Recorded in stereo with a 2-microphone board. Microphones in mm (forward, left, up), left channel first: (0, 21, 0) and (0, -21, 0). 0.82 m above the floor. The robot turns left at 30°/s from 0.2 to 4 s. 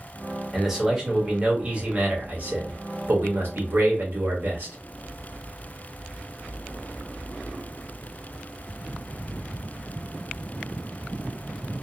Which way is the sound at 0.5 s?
5° right.